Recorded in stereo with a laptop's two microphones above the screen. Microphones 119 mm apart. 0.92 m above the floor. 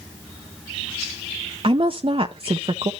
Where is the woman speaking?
50° right (ahead or behind), 0.5 m.